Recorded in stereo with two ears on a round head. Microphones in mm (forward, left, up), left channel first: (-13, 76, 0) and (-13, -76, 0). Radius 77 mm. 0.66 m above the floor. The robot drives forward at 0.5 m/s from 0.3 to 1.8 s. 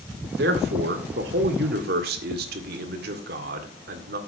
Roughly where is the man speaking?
Right.